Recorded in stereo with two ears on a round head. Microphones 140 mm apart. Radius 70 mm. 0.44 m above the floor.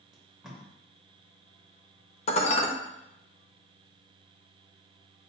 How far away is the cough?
No cough in this recording.